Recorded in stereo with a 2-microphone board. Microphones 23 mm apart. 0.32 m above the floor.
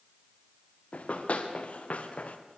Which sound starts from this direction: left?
Running footsteps, at 0.9 s.